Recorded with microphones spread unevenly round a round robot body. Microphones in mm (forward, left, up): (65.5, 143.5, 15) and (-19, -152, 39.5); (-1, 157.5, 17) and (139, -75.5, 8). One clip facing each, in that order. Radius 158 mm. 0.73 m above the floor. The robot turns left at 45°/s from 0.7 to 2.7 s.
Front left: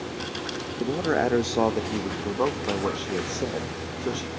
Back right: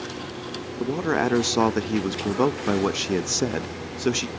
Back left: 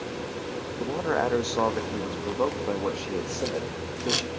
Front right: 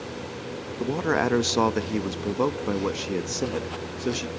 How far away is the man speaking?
About 0.6 m.